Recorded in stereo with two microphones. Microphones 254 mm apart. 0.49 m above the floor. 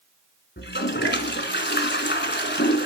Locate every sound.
0.6 s a toilet flushing: 45° left (ahead or behind), 1.2 m